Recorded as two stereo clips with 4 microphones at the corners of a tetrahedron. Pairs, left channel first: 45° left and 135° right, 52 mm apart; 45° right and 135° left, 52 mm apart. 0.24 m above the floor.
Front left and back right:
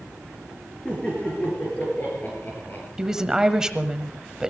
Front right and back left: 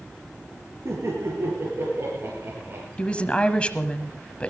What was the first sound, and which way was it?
Laughter, 115° left.